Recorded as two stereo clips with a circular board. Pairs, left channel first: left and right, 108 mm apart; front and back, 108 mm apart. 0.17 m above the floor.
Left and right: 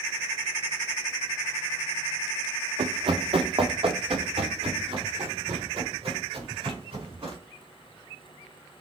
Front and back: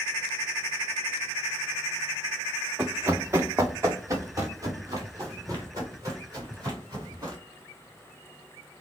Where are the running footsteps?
110° right, 0.5 m; by 7.4 s 125° right, 4 m.